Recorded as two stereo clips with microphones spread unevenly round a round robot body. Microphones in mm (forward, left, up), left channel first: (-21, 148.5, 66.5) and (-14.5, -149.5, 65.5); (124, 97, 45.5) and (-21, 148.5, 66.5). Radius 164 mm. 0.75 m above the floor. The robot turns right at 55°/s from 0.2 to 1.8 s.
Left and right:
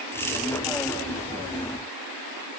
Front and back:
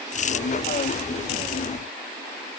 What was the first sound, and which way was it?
Only background noise.